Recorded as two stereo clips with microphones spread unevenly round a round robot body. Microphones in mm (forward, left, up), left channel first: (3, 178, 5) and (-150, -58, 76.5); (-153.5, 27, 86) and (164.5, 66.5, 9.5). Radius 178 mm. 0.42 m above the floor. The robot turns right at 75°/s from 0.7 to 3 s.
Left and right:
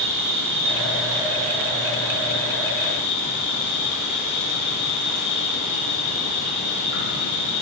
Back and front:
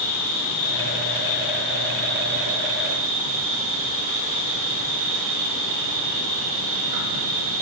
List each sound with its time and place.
0.0 s an insect: 165° right, 5.5 m; by 7.6 s 5° left, 5.5 m